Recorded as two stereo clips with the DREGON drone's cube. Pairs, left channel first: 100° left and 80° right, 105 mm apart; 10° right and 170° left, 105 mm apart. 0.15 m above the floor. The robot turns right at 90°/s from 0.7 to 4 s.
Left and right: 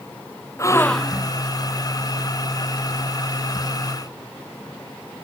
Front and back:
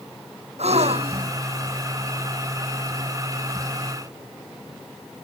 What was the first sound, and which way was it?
A gasp, 160° left.